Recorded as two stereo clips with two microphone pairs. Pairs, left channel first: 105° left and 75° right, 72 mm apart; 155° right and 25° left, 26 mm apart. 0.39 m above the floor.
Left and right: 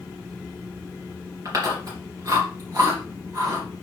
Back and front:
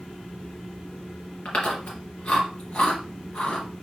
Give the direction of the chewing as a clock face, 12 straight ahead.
4 o'clock.